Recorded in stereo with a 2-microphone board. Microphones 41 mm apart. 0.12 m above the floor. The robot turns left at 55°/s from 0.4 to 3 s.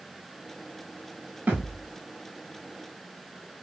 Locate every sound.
1.5 s a thud: 50° right (ahead or behind), 9.5 m; by 1.9 s 25° right (ahead or behind), 9.5 m